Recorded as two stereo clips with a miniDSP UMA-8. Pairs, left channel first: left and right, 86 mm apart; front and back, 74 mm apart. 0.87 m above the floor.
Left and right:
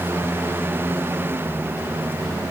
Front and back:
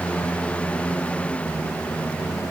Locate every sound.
Only background noise.